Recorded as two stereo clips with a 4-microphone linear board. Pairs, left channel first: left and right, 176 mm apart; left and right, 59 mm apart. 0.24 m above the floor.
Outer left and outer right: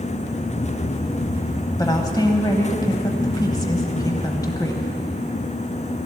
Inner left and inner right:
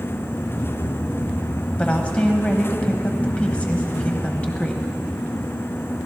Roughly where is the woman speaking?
Left.